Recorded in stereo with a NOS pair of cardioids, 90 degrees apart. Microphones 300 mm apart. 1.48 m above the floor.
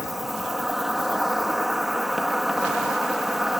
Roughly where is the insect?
Ahead.